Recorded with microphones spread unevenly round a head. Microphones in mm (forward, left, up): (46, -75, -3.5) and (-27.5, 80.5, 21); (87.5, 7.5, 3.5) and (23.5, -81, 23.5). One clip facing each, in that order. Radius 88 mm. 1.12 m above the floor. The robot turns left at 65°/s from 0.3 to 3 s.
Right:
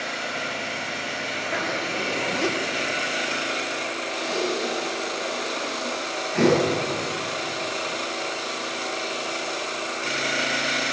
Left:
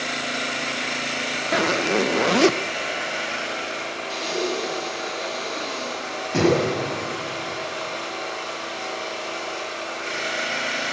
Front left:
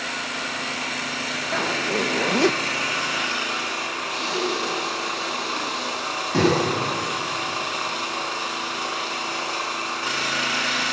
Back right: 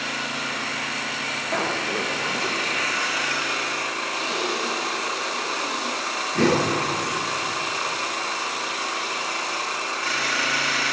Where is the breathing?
85° left, 6 m.